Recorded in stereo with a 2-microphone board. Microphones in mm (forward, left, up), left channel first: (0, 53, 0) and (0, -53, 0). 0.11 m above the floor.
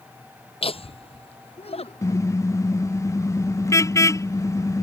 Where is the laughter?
65° left (ahead or behind); by 2.4 s 70° left (ahead or behind).